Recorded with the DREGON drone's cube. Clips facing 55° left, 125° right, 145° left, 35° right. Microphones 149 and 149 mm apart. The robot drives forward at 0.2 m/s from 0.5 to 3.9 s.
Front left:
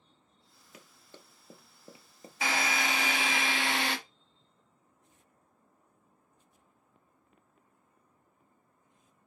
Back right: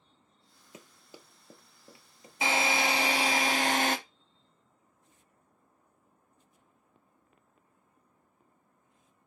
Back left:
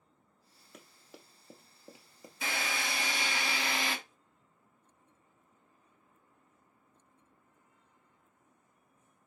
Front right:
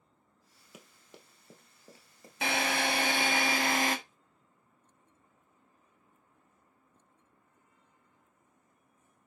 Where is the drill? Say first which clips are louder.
Back right 3 dB, front right 6 dB; 60° right, 0.8 m; by 4.0 s 80° right, 0.7 m.